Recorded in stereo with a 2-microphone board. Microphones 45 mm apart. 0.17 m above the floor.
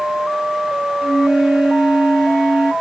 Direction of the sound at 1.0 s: 5° left (ahead or behind).